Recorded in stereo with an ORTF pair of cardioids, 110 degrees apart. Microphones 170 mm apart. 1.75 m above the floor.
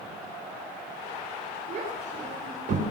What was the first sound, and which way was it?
A child speaking, 45° right.